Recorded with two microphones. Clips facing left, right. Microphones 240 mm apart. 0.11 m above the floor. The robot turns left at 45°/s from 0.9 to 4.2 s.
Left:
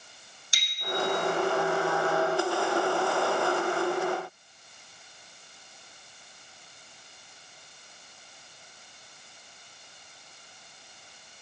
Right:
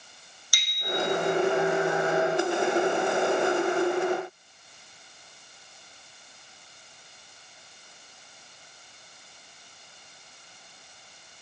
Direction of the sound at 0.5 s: 25° left (ahead or behind).